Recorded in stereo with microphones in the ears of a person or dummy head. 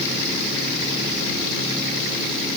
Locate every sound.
Only background noise.